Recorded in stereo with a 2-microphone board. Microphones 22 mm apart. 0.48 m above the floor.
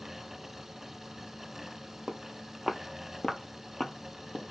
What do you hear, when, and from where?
2.1 s footsteps: 35° right (ahead or behind), 0.8 m; by 4.5 s 65° left (ahead or behind), 1.0 m